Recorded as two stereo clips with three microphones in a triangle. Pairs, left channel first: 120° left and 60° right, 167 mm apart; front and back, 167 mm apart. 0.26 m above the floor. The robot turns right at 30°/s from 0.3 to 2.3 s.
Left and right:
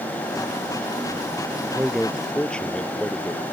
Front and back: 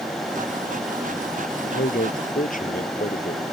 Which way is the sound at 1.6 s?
15° left.